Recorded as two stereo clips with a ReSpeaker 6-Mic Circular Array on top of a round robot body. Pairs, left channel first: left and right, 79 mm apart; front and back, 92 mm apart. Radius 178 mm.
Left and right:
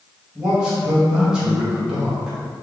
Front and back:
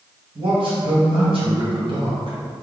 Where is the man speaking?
170° right, 2.0 m.